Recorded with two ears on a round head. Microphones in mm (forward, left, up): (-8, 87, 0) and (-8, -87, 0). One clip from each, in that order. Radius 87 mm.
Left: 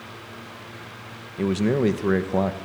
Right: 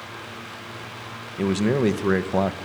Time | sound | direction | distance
1.4 | a man speaking | 15° right (ahead or behind) | 1.4 m